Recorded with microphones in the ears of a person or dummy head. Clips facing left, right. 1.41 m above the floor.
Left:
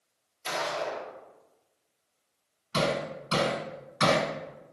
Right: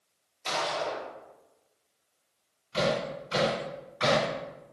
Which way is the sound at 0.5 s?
5° left (ahead or behind).